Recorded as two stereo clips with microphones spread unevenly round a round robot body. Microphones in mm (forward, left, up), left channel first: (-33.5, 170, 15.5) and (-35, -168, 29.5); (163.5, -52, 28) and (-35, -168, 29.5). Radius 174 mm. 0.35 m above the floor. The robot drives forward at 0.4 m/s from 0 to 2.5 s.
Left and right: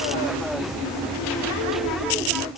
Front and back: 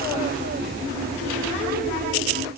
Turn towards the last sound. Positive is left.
No sound to turn to.